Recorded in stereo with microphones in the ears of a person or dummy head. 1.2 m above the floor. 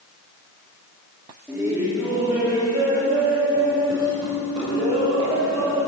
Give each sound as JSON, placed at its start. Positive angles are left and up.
{"t": 1.5, "sound": "laughter", "side_deg": -10, "distance_m": 2.5}